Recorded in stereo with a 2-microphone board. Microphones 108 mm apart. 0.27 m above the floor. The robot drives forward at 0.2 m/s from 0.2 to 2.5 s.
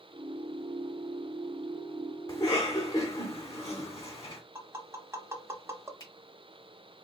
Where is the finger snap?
35° left (ahead or behind), 2 m.